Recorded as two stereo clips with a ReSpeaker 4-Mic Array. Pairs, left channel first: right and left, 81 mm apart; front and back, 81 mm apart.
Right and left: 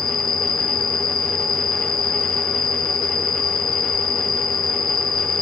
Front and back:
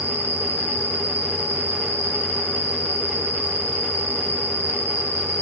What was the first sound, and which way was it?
An insect, 120° right.